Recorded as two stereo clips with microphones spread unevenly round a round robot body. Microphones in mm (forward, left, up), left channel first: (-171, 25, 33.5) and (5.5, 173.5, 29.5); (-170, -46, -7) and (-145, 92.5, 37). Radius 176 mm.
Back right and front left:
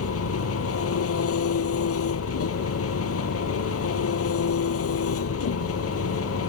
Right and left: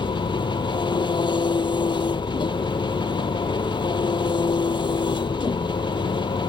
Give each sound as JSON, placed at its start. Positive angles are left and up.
{"t": 0.0, "sound": "an engine running", "azimuth_deg": -160}